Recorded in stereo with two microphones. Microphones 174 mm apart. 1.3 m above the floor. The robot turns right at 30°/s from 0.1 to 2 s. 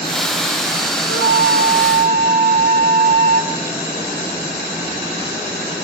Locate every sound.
1.1 s a flute: 80° right, 1.8 m; by 3.5 s 50° right (ahead or behind), 1.8 m